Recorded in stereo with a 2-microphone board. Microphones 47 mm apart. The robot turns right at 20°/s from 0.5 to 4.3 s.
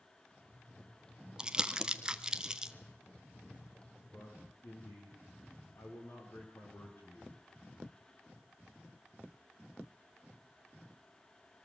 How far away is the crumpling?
About 0.9 m.